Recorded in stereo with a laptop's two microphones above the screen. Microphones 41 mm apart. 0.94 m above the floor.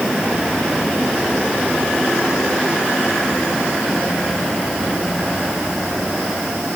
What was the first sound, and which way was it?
Only background noise.